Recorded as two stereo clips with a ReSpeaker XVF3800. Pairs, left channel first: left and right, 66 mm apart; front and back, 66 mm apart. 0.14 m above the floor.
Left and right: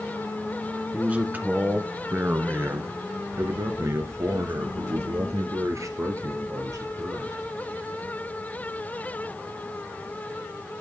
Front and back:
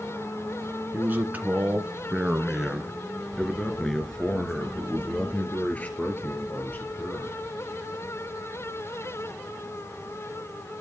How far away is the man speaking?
About 1.8 m.